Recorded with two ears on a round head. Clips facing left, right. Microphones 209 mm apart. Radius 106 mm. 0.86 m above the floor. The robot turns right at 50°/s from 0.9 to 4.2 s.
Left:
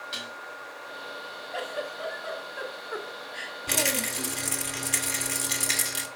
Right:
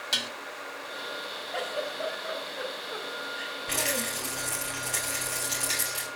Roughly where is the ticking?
I don't hear ticking.